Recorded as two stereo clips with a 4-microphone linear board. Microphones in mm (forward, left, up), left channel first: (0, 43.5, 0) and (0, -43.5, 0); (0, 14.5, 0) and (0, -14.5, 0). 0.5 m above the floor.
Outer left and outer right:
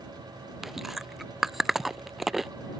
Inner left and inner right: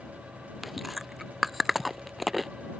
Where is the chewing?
5° right (ahead or behind).